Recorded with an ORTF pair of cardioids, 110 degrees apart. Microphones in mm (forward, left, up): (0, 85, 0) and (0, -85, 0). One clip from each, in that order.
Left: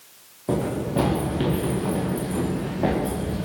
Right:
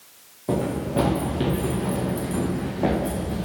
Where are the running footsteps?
Straight ahead, 6 m.